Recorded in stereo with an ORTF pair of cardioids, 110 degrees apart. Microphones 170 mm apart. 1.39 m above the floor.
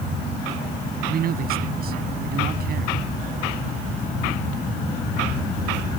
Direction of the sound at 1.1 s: 55° right.